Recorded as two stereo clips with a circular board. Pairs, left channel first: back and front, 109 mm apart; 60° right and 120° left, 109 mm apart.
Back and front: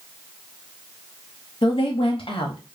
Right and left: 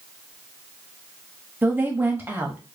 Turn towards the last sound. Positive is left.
turn(degrees=-170)